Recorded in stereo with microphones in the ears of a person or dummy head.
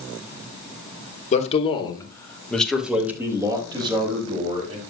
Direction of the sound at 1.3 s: 40° left (ahead or behind).